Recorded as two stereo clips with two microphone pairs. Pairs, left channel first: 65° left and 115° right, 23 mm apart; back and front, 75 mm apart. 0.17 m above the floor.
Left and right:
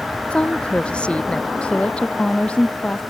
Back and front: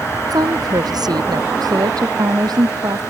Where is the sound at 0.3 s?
30° left; by 1.5 s 25° left.